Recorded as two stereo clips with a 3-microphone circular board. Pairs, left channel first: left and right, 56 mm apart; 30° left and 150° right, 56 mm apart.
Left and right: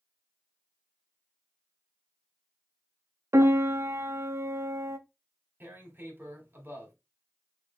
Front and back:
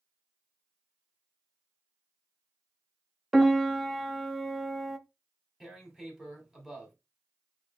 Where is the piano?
60° right, 0.6 m.